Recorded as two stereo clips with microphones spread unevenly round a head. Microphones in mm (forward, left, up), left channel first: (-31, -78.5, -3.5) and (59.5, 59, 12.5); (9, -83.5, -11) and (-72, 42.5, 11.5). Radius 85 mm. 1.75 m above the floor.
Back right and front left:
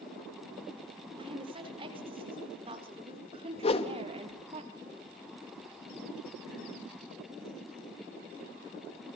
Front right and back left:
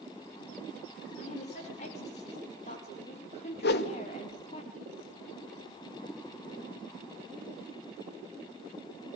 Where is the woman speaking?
5° right, 7 m; by 4.6 s straight ahead, 5 m.